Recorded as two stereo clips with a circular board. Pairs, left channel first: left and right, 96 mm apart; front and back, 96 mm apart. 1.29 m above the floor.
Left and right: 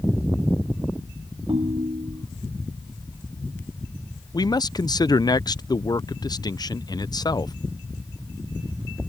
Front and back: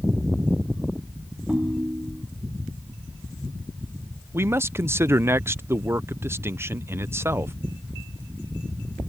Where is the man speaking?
120° left.